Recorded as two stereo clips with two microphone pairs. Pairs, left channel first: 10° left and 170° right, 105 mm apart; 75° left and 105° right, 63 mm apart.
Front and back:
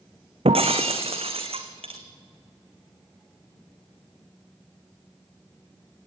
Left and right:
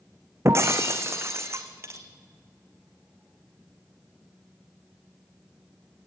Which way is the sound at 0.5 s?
150° right.